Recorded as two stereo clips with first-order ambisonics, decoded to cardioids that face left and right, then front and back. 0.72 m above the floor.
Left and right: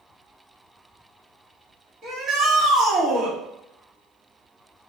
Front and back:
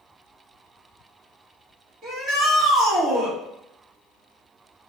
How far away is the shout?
About 1.8 m.